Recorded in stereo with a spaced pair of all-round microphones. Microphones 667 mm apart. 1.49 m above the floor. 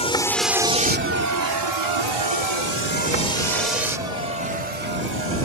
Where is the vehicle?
10° left (ahead or behind); by 5.5 s 80° right.